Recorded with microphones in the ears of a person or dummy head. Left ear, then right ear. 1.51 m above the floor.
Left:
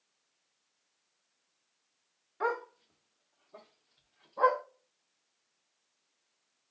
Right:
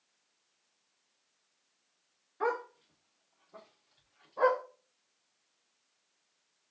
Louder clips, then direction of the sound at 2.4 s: Even; 10° left (ahead or behind).